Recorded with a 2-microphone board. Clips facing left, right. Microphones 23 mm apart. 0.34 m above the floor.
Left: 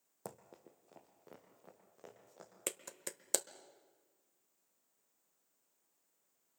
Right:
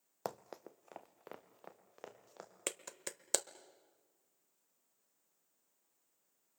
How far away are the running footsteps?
About 0.6 m.